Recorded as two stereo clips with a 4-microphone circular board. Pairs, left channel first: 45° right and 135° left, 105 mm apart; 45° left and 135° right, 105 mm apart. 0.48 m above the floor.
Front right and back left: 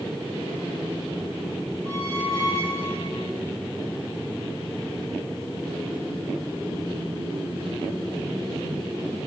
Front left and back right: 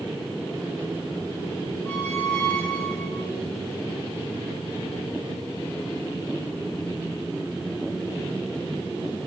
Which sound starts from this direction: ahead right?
A squeak, at 1.9 s.